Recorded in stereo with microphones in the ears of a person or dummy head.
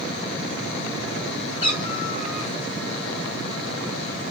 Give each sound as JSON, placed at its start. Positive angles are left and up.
{"t": 1.6, "sound": "a cat meowing", "side_deg": 30, "distance_m": 1.5}